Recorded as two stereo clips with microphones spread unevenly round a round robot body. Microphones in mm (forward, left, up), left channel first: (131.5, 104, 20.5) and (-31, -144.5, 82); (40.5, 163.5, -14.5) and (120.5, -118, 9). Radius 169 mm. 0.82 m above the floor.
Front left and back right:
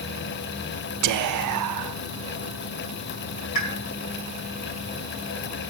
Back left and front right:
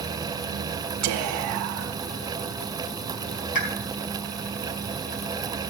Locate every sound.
1.0 s whispering: 100° right, 0.6 m
3.5 s a pop: 90° left, 4 m